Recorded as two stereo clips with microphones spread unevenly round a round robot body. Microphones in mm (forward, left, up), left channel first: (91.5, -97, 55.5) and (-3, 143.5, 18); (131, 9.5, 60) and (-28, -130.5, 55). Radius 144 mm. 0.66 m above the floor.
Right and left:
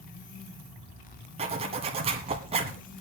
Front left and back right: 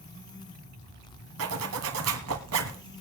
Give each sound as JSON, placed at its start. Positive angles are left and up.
{"t": 1.4, "sound": "a zipper", "azimuth_deg": -175, "distance_m": 1.3}